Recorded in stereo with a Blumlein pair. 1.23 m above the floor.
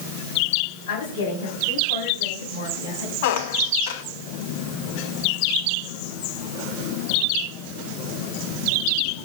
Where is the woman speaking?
55° left, 8 m; by 3.1 s 65° left, 9 m.